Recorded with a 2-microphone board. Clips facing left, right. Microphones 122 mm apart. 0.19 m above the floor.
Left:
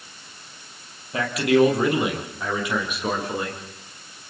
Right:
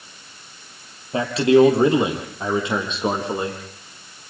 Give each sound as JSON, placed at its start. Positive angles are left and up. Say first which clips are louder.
{"t": 1.1, "sound": "a man speaking", "louder": "right 4 dB", "side_deg": -30, "distance_m": 6.0}